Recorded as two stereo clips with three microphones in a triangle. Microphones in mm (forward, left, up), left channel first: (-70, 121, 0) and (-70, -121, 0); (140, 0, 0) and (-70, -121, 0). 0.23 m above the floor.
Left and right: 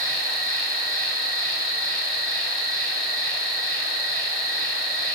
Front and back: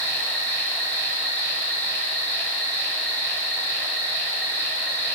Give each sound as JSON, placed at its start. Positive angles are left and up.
{"t": 0.0, "sound": "an insect", "azimuth_deg": -55, "distance_m": 2.0}